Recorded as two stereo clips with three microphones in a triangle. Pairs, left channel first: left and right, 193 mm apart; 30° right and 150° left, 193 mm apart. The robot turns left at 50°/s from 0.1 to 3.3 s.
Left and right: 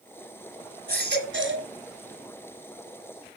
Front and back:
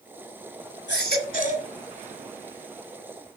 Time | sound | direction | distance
0.9 | a baby crying | 50° right | 1.9 m